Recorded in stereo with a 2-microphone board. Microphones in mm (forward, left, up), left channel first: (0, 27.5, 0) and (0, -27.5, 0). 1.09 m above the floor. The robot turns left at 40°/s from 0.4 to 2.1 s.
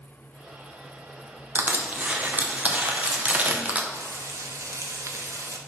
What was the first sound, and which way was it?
Crushing, 35° right (ahead or behind).